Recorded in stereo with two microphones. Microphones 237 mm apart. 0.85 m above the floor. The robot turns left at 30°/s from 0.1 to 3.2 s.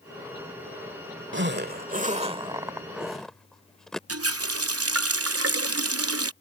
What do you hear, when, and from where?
1.3 s a zipper: 55° right (ahead or behind); by 4.0 s 5° left (ahead or behind)
4.1 s a running tap: 80° right